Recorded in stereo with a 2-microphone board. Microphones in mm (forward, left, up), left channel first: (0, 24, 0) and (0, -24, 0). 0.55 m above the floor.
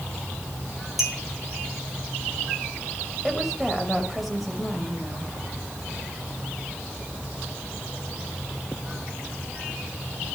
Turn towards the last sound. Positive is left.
turn(degrees=-5)  # may be behind; listen again after turning